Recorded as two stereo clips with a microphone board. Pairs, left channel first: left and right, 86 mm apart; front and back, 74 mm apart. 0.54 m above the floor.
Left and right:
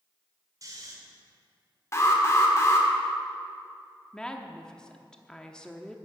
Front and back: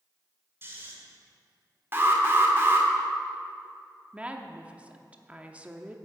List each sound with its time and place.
0.6 s snoring: 130° right, 2 m
1.9 s an alarm: 135° left, 1.8 m
4.1 s a woman speaking: 150° left, 0.8 m